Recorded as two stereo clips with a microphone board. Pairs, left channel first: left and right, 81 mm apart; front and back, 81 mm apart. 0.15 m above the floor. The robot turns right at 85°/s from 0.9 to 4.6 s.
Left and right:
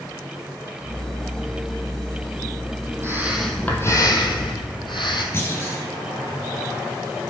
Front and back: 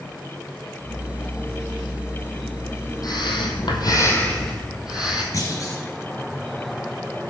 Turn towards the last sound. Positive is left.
turn(degrees=35)